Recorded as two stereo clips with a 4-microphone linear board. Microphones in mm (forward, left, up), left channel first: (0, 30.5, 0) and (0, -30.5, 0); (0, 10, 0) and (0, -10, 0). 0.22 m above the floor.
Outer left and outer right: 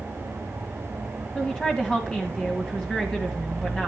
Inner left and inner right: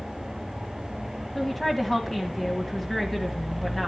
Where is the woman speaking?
15° left (ahead or behind), 1.5 m.